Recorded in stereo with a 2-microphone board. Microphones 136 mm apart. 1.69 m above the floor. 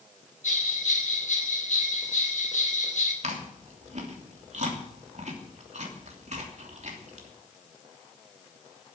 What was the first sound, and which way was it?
A bell, 65° left (ahead or behind).